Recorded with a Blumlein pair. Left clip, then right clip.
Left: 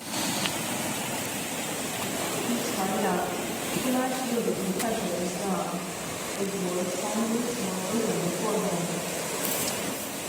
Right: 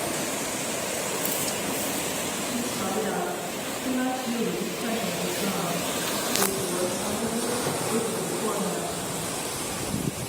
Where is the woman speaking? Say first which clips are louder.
Even; 55° left, 9.5 m; by 9.1 s 75° left, 10 m.